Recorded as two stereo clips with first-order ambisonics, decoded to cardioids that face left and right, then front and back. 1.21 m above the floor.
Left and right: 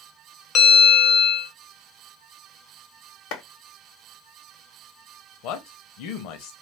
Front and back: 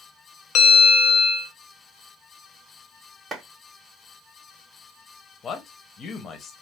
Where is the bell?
40° left, 0.6 m.